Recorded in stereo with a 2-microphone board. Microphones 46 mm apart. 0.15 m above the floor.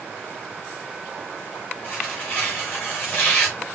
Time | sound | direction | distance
1.8 | tearing paper | 35° left (ahead or behind) | 10 m